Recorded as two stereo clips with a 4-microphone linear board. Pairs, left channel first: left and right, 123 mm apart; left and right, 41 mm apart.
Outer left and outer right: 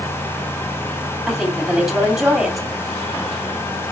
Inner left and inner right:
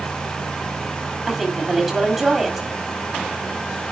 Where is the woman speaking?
Centre (ahead or behind), 2.5 m.